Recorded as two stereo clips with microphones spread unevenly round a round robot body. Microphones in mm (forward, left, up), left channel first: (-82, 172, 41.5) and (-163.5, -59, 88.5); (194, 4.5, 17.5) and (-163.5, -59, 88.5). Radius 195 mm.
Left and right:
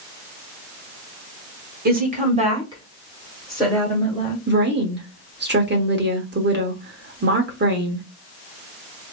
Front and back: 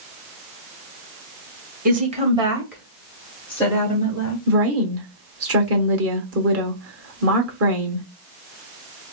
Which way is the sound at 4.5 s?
130° right.